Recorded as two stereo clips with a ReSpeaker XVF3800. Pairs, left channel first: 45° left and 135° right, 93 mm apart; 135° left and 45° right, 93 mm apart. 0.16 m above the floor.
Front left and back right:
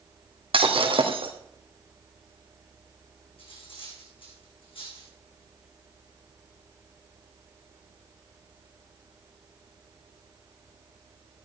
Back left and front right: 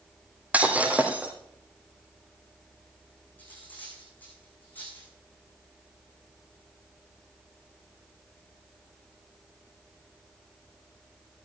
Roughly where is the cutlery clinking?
Ahead left.